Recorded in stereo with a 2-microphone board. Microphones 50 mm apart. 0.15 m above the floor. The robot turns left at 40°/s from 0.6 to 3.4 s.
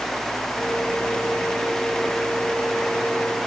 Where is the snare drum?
I don't hear a snare drum.